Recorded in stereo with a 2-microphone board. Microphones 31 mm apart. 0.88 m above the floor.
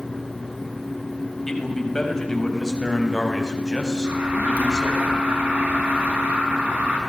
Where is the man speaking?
15° left (ahead or behind), 6.5 m; by 5.0 s 20° left (ahead or behind), 8.5 m.